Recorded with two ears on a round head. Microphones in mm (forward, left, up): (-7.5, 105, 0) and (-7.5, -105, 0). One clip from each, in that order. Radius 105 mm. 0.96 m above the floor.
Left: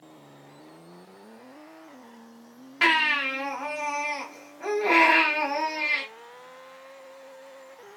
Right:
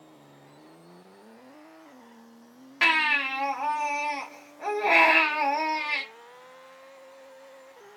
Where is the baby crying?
10° right (ahead or behind), 0.9 m.